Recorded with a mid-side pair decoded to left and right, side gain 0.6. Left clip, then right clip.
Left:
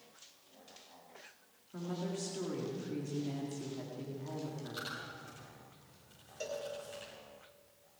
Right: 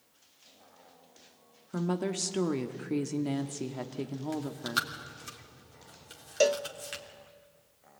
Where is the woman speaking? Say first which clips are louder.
Right 8 dB; 55° right, 1.7 m.